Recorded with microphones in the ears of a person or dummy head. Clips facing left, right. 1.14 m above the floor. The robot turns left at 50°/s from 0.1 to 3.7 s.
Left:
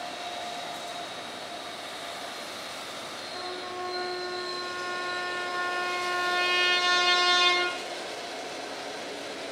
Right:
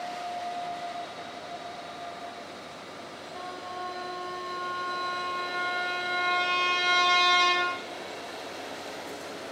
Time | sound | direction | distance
3.4 | a trumpet | 10° left (ahead or behind) | 1.5 m